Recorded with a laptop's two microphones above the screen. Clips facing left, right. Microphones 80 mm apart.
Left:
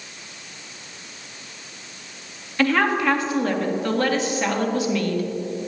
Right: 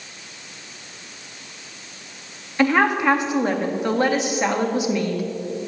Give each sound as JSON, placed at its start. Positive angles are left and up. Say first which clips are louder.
{"t": 2.6, "sound": "a woman speaking", "louder": "right 2 dB", "side_deg": -20, "distance_m": 1.9}